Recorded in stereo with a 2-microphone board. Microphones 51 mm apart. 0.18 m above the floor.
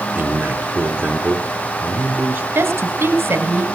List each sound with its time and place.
0.1 s a man speaking: 35° right (ahead or behind), 2.5 m
2.5 s a woman speaking: 45° right (ahead or behind), 2.5 m